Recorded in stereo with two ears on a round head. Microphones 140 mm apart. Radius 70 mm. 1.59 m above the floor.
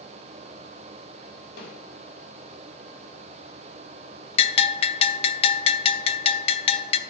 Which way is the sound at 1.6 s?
75° left (ahead or behind).